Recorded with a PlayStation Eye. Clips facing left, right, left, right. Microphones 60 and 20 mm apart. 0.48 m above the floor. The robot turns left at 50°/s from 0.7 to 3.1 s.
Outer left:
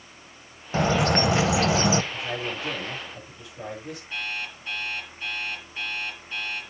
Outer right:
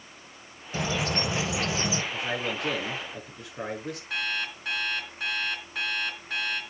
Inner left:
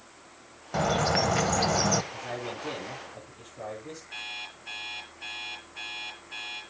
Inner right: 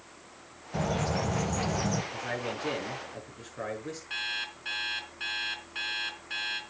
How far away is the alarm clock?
About 3.5 m.